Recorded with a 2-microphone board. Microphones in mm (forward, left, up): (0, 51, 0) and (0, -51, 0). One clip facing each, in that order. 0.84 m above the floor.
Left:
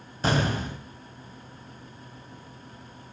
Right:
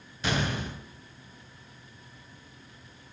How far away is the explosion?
About 1.4 m.